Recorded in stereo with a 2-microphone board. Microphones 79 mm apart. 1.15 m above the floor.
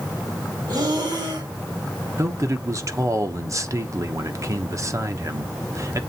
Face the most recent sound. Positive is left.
turn(degrees=-45)  # may be behind; listen again after turning